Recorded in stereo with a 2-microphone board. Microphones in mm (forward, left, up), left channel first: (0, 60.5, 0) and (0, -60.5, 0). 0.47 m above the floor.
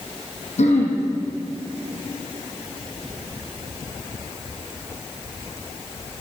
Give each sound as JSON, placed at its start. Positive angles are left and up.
{"t": 0.6, "sound": "throat clearing", "side_deg": 70, "distance_m": 4.5}